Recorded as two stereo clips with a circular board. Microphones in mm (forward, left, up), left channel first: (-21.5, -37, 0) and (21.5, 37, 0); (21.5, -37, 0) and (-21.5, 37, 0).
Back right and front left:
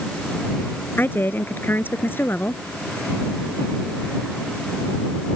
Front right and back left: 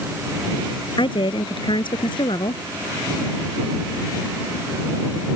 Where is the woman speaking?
55° right.